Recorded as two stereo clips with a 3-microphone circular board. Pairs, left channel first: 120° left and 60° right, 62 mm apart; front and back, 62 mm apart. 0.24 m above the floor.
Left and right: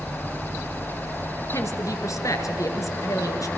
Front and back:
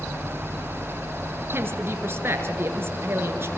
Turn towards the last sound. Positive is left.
turn(degrees=135)